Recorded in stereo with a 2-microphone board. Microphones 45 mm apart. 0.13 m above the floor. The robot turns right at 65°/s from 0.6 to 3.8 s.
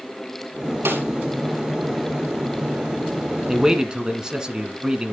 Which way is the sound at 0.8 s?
65° right (ahead or behind).